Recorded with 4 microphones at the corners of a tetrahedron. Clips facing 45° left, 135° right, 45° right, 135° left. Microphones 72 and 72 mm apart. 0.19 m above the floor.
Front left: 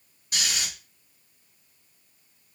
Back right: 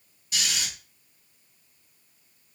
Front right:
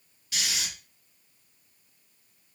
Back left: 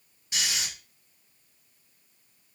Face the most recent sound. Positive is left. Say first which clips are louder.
# even, back left 1 dB
turn(degrees=75)